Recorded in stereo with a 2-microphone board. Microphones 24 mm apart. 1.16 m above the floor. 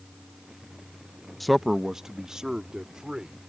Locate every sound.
1.4 s a man speaking: 5° left (ahead or behind); by 3.4 s 30° right (ahead or behind)